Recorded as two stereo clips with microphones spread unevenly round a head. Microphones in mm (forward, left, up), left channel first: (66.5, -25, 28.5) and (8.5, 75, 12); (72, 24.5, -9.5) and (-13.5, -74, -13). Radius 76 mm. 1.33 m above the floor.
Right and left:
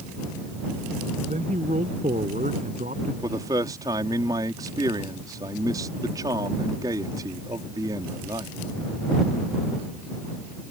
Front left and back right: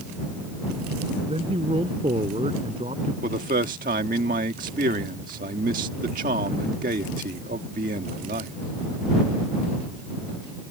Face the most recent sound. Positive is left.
turn(degrees=-170)